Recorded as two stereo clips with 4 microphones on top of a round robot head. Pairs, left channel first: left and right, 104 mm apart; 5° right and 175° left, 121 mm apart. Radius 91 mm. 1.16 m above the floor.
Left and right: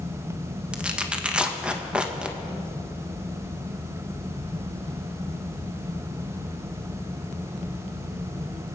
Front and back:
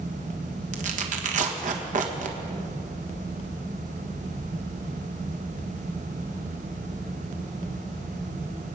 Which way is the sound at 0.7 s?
170° right.